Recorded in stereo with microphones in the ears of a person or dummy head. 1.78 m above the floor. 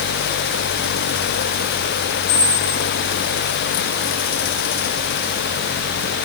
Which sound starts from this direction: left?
A squeak, at 2.3 s.